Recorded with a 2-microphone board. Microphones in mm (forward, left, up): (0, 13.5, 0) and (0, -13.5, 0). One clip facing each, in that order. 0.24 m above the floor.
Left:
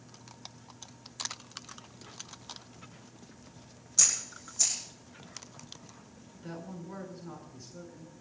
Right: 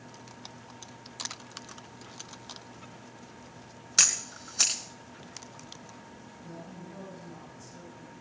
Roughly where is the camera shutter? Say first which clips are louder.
Right 5 dB; right.